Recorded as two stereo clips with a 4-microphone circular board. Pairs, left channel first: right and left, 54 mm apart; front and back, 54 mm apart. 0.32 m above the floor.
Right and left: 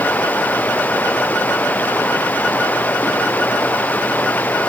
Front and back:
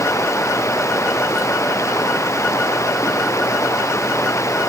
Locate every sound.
0.0 s running water: 30° right